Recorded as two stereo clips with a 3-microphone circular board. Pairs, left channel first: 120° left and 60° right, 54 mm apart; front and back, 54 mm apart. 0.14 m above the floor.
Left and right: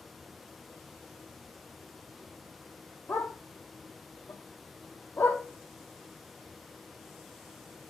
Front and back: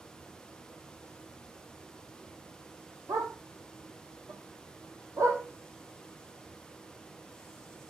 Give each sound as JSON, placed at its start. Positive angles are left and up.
{"t": 3.1, "sound": "a dog barking", "azimuth_deg": 170, "distance_m": 1.6}